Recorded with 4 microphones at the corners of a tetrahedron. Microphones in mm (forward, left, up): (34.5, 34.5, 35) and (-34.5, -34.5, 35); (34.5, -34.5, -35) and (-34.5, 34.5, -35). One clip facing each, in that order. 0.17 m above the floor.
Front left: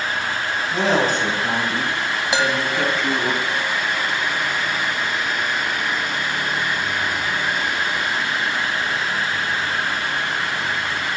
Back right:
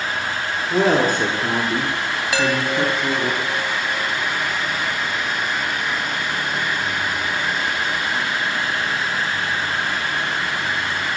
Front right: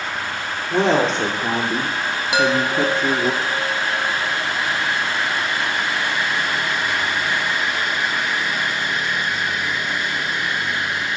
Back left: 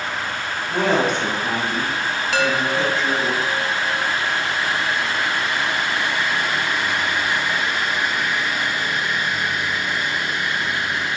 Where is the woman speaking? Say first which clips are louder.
Back right 3 dB, front right 2 dB; 105° right, 2.5 m; by 3.3 s 50° right, 1.5 m.